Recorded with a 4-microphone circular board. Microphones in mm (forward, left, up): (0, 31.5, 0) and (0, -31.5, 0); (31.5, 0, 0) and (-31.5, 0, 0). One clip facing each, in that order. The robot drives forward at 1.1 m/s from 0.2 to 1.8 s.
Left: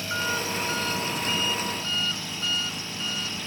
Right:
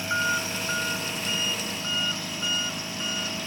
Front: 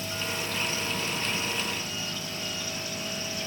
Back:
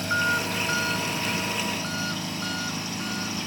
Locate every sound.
0.0 s an engine running: 160° right; by 3.5 s 165° right